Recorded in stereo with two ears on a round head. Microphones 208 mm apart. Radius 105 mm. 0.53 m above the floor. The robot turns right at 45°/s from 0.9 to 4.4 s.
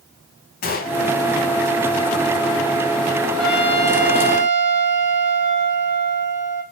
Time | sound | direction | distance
0.6 | a gunshot | 40° left (ahead or behind) | 0.9 m
3.4 | a trumpet | straight behind | 1.9 m